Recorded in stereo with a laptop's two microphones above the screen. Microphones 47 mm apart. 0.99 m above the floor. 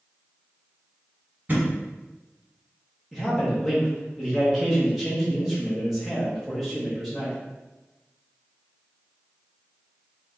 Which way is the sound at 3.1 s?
Centre (ahead or behind).